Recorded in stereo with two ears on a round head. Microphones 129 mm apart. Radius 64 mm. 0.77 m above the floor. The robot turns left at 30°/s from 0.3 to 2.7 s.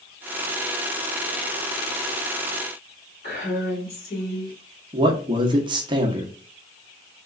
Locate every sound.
3.2 s a woman speaking: 60° left (ahead or behind), 2 m
4.9 s a man speaking: 30° right (ahead or behind), 0.8 m